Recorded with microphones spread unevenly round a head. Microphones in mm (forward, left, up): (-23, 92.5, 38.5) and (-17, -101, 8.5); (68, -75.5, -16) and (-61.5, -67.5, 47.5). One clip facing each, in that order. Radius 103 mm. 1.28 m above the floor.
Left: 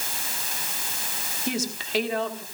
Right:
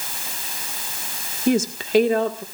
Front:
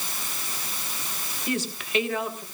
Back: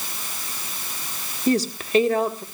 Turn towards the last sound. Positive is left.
turn(degrees=-130)